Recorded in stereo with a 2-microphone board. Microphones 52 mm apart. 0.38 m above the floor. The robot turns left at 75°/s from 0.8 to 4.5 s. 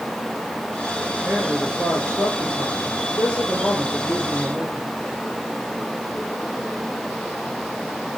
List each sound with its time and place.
1.2 s a man speaking: 145° right, 8 m; by 4.9 s 30° right, 8 m